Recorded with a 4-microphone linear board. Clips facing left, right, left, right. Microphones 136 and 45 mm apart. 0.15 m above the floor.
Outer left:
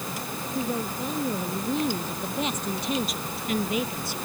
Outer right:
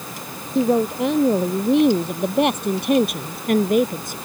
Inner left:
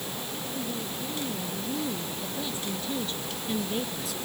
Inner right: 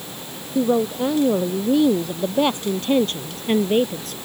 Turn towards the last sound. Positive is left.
turn(degrees=-50)  # may be behind; listen again after turning